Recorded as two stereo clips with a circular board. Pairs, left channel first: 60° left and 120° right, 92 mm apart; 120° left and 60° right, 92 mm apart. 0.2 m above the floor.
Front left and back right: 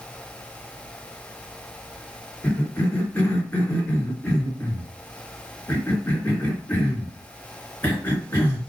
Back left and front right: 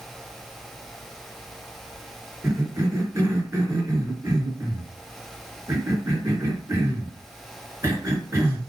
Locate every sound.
2.4 s a cough: 5° right, 3 m